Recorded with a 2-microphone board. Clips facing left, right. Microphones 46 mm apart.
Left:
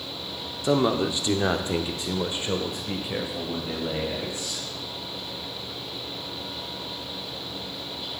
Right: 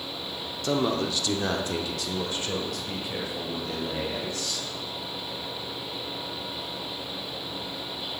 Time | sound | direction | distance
0.6 | a man speaking | 20° left (ahead or behind) | 0.7 m